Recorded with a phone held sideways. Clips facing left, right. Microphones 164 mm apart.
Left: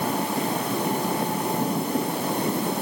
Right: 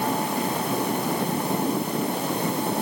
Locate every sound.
Only background noise.